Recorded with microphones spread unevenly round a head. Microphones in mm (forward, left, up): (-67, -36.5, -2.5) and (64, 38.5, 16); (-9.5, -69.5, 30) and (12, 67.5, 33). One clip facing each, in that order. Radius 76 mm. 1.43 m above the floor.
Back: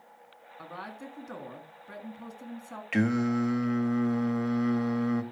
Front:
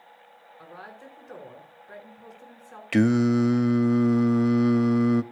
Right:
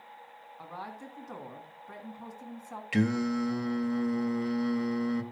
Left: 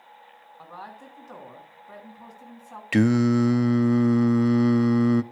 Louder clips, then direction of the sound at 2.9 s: Front 6 dB, left 9 dB; 75° left.